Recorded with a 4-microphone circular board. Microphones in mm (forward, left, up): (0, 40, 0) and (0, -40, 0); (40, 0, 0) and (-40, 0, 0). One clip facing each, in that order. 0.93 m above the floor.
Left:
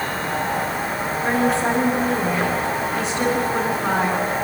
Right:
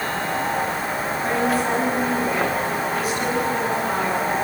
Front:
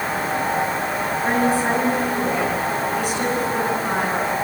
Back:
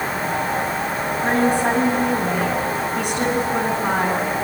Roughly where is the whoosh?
No whoosh in this recording.